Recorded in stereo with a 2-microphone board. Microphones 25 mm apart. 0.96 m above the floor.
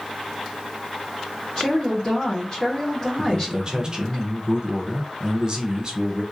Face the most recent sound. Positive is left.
turn(degrees=-30)  # may be behind; listen again after turning